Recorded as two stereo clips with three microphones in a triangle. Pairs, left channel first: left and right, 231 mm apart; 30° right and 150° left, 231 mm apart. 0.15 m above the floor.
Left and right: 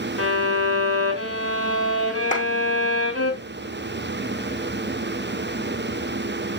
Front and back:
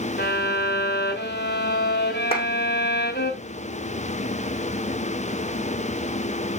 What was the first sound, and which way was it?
A violin, 75° right.